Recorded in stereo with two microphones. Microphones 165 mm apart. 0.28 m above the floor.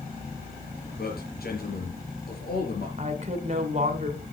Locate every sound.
1.0 s a man speaking: 70° left (ahead or behind), 5 m
3.0 s a woman speaking: 45° right (ahead or behind), 2 m